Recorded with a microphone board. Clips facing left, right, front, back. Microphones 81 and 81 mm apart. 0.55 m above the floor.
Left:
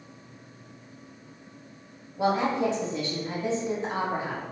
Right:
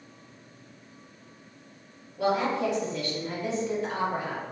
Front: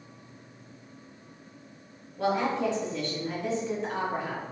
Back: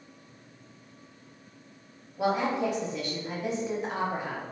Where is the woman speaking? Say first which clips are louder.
Left 1 dB, even; 120° left, 1.1 m.